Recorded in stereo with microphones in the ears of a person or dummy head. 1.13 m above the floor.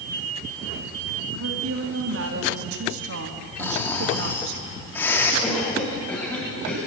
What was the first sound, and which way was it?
A woman speaking, 65° right (ahead or behind).